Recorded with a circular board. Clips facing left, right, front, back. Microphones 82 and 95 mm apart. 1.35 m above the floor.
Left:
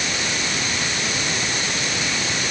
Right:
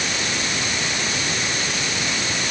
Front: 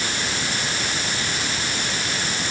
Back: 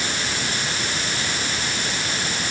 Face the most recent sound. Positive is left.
No sound to turn to.